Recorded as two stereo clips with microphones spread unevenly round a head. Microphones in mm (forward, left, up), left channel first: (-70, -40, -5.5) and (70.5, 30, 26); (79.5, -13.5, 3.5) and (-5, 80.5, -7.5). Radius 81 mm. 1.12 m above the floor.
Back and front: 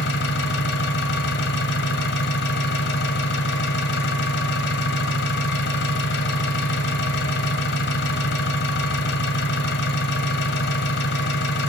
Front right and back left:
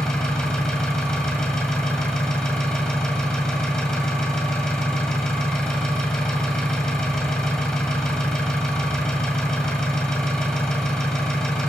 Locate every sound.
0.0 s an engine running: 130° right, 1.9 m